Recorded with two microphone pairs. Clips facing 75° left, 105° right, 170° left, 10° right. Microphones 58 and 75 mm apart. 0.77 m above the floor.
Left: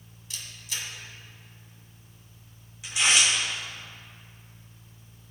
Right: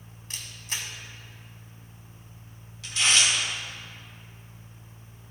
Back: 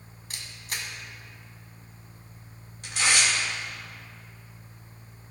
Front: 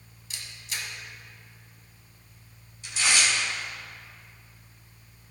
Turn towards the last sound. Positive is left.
turn(degrees=145)